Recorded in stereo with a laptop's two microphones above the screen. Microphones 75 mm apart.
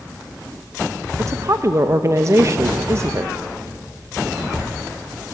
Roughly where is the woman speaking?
Right.